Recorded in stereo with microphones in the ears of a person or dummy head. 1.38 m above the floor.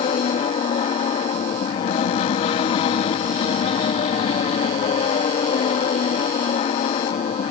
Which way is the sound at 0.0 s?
40° left (ahead or behind).